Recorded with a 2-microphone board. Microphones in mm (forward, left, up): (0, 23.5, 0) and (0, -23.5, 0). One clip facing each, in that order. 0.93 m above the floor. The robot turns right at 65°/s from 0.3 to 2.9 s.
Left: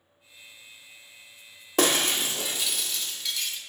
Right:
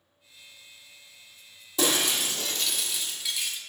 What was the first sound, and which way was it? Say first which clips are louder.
Breaking glass: left 2 dB; 115° left.